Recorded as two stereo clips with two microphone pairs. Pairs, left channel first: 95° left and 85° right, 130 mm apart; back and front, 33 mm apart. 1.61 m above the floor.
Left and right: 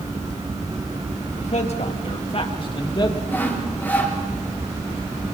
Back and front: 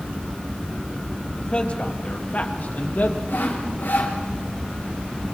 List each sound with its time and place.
1.4 s a man speaking: 125° left, 3.5 m; by 3.2 s 155° left, 3 m
3.3 s sawing: 170° left, 6.5 m